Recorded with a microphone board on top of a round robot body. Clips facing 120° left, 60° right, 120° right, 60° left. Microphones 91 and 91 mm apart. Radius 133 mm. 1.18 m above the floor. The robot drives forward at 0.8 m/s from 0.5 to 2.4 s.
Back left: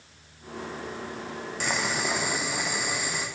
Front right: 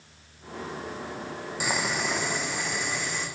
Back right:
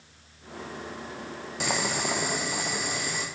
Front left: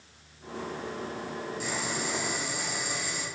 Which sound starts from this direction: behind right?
Boiling, at 1.6 s.